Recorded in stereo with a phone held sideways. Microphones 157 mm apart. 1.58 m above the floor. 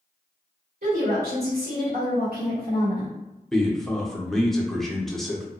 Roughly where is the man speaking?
Centre.